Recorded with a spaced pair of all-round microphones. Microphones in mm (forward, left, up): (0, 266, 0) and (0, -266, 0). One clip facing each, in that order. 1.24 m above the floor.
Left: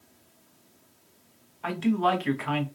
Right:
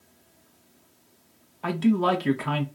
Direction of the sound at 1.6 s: 60° right (ahead or behind).